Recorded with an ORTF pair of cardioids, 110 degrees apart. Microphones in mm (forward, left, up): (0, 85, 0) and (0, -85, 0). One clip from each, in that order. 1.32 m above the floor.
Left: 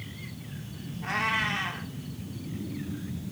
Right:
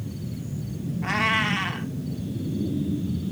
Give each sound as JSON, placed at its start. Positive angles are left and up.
{"t": 1.0, "sound": "a cat meowing", "azimuth_deg": -30, "distance_m": 2.0}